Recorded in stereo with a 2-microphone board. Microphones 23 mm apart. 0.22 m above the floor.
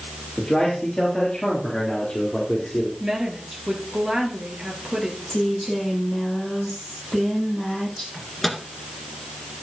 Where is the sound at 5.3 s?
10° left (ahead or behind), 7 m.